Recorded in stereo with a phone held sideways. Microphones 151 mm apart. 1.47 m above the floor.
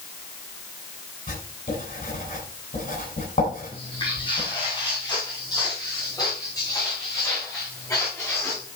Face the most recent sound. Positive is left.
turn(degrees=15)  # may be behind; listen again after turning